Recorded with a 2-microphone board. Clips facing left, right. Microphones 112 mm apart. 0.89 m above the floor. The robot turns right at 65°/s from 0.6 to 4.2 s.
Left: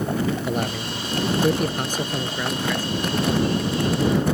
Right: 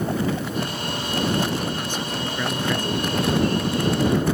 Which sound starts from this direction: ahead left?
A man speaking, at 0.5 s.